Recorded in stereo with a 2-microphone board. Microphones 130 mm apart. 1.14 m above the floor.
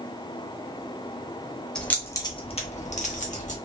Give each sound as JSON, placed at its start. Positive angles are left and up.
{"t": 1.8, "sound": "keys jangling", "side_deg": 5, "distance_m": 0.8}